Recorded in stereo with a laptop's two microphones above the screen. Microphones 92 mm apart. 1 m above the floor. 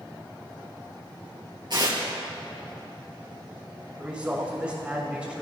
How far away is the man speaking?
About 6.5 m.